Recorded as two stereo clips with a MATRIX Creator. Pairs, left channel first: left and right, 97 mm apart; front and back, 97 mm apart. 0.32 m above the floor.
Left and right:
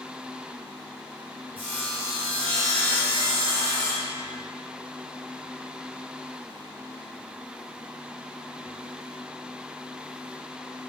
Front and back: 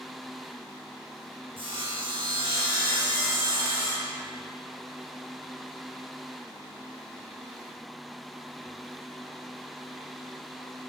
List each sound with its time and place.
1.6 s sawing: 165° left, 4 m